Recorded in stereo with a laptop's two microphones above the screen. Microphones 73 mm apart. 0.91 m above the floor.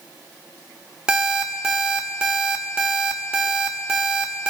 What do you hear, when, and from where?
1.1 s an alarm clock: 10° right (ahead or behind), 0.8 m